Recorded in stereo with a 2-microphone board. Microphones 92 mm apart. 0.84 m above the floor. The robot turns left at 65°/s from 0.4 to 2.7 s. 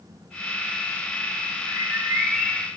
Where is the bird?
135° right, 1.3 m; by 2.7 s 160° left, 1.3 m.